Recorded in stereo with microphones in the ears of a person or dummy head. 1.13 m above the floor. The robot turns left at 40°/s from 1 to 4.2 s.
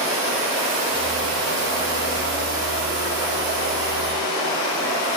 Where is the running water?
35° right, 2.5 m; by 5.2 s 165° right, 2.5 m.